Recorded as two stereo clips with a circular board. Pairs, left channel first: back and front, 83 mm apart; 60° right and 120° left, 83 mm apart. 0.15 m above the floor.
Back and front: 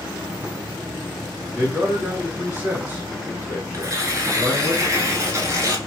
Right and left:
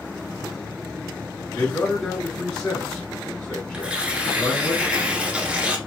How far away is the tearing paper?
About 0.7 m.